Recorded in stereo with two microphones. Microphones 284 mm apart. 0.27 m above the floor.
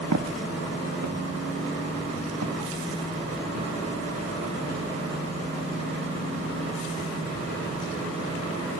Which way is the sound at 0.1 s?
75° right (ahead or behind).